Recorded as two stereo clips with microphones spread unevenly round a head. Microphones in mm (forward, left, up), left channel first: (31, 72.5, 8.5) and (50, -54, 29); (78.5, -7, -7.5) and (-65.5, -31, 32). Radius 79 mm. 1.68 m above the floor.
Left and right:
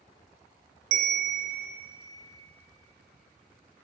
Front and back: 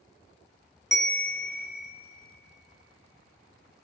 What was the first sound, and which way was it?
A bell, 85° right.